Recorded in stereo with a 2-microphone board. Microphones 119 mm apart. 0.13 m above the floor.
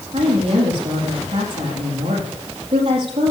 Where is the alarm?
No alarm in this recording.